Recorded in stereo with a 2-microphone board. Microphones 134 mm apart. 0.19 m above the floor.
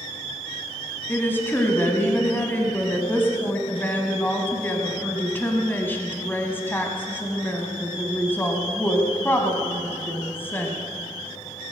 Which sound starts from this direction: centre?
A woman speaking, at 1.1 s.